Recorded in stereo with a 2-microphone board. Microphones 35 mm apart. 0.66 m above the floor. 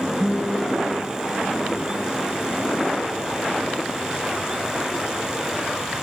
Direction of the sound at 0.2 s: 30° right (ahead or behind).